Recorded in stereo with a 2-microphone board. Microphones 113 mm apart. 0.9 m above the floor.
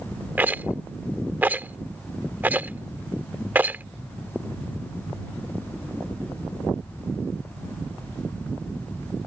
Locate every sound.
0.4 s a rattle: 15° right (ahead or behind)